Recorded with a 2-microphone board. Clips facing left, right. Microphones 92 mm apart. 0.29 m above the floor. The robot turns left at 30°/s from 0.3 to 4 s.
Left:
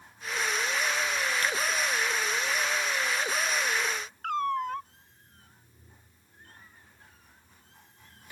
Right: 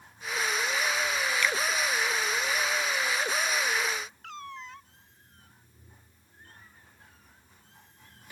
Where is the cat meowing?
65° left (ahead or behind).